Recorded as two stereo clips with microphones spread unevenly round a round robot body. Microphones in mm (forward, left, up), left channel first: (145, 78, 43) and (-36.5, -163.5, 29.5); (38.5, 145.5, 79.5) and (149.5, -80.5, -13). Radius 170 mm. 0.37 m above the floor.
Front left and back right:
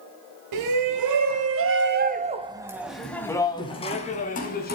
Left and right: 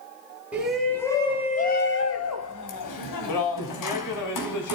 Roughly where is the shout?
Behind right.